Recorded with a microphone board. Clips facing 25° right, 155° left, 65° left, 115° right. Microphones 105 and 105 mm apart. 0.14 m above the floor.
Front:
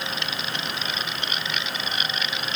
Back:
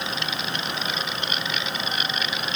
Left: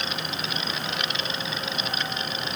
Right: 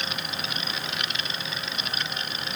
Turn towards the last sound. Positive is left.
No sound to turn to.